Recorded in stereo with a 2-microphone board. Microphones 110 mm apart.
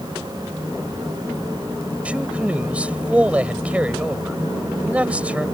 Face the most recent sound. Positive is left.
turn(degrees=-15)  # may be behind; listen again after turning